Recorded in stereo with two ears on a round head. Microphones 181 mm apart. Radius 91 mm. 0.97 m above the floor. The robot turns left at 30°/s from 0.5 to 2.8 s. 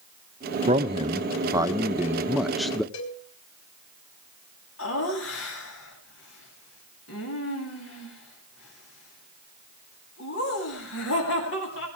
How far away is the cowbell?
About 4.5 m.